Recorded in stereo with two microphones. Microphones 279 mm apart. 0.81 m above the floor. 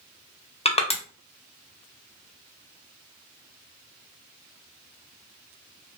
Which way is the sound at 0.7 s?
20° left (ahead or behind).